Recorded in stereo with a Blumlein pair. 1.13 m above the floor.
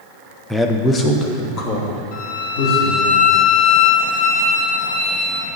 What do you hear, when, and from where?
0.5 s a man speaking: straight ahead, 0.6 m; by 3.1 s 40° left, 2.5 m
2.1 s a violin: 45° left, 1.5 m